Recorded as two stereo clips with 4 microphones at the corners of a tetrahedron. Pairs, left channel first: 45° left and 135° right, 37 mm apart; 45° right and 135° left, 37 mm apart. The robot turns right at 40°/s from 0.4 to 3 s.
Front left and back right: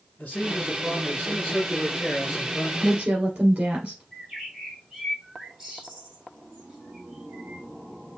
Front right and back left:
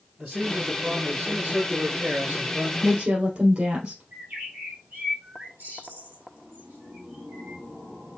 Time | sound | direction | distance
0.2 | a man speaking | 40° left | 3 m
2.8 | a woman speaking | 155° left | 2.5 m
4.1 | a bird | 150° left | 3.5 m